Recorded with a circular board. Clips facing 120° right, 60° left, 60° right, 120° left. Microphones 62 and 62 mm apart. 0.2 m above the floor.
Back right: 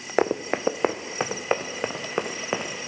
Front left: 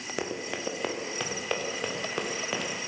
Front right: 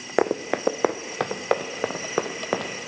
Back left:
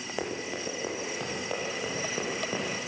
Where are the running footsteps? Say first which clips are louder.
Back right 11 dB, front right 13 dB; 80° right, 0.8 m; by 2.7 s 60° right, 2 m.